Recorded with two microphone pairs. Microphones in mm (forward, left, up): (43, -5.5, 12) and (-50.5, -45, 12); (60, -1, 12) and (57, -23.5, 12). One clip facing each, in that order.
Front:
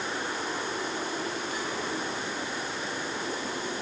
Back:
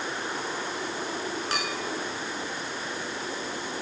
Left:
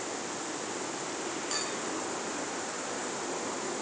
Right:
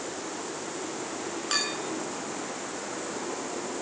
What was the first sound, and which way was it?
A clink, 150° right.